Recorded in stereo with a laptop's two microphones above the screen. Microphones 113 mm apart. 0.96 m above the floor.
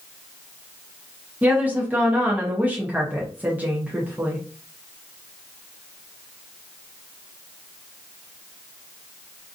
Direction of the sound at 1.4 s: 15° right (ahead or behind).